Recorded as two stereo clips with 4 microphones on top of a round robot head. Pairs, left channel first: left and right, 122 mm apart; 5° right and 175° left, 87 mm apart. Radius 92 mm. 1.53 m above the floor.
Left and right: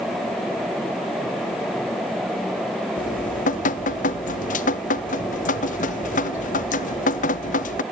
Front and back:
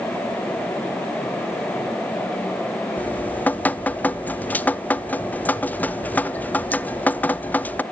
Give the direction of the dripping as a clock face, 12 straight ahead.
10 o'clock.